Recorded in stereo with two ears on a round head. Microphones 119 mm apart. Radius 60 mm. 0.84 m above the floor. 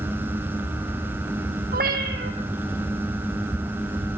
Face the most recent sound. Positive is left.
turn(degrees=-70)  # may be behind; listen again after turning